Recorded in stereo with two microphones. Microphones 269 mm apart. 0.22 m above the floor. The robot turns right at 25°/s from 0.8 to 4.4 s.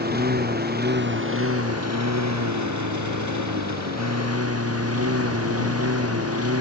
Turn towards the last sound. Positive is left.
turn(degrees=-55)